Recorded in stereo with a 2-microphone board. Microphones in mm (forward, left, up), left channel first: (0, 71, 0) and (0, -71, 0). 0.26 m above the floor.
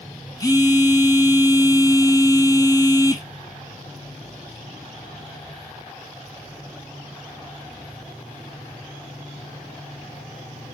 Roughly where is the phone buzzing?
Left.